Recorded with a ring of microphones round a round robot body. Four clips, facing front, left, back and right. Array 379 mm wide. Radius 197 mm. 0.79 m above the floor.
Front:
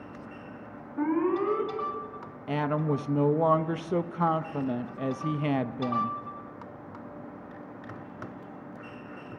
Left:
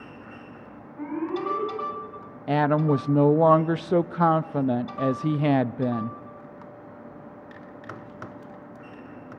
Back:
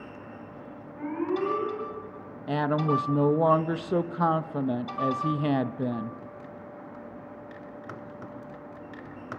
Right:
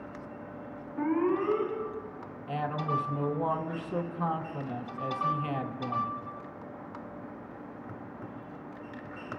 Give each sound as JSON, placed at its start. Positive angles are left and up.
{"t": 1.0, "sound": "an alarm", "azimuth_deg": -25, "distance_m": 8.0}
{"t": 2.5, "sound": "a woman speaking", "azimuth_deg": 95, "distance_m": 0.6}